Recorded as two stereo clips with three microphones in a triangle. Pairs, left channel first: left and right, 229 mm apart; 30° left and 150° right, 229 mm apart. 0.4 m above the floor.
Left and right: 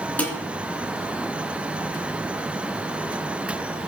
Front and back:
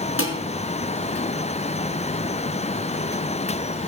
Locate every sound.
0.2 s dishes clattering: 5° left, 3.5 m